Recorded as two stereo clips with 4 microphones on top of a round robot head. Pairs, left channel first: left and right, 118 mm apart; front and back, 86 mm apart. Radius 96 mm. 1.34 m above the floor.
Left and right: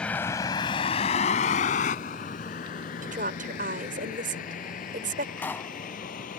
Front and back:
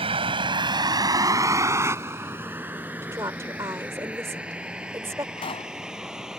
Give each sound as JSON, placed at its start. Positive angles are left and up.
{"t": 0.0, "sound": "a vehicle", "azimuth_deg": 175}
{"t": 3.0, "sound": "a woman speaking", "azimuth_deg": -110}
{"t": 5.4, "sound": "a pop", "azimuth_deg": 15}